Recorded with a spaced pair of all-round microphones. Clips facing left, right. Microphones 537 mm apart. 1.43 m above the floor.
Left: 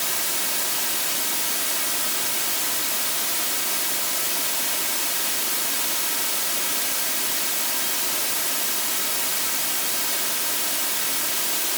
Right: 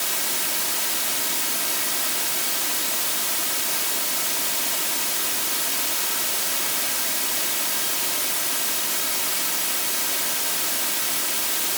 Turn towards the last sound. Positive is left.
No sound to turn to.